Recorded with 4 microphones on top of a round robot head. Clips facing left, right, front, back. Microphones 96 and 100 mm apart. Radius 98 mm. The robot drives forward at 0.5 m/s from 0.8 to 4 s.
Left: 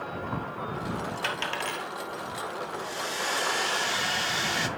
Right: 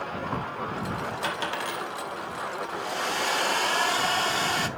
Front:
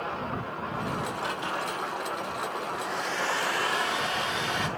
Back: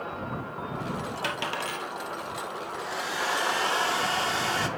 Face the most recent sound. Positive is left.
turn(degrees=-130)